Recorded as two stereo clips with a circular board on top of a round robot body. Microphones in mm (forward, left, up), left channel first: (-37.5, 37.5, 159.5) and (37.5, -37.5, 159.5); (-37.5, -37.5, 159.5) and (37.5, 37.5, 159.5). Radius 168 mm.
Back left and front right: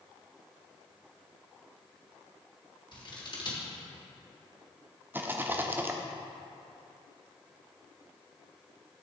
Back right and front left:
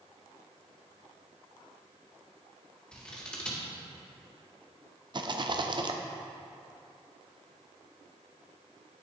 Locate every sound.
2.9 s scissors: 145° left, 1.9 m
5.1 s a rattle: 20° left, 0.8 m